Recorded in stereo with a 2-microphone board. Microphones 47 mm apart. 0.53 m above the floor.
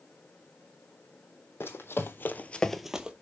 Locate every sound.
1.6 s running footsteps: 55° left (ahead or behind), 1.2 m; by 3.1 s 20° right (ahead or behind), 0.8 m